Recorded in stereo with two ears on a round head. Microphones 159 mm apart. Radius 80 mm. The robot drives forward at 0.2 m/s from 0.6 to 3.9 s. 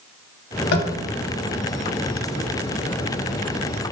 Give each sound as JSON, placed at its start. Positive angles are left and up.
{"t": 0.7, "sound": "tapping", "side_deg": 60, "distance_m": 0.5}